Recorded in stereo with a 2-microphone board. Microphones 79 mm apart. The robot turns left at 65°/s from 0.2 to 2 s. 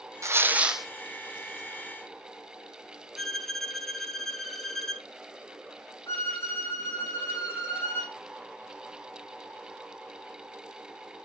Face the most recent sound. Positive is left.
turn(degrees=30)  # may be behind; listen again after turning